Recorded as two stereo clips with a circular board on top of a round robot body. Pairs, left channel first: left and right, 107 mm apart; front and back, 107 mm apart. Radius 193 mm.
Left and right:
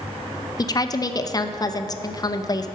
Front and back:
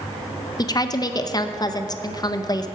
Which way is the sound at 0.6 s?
45° left.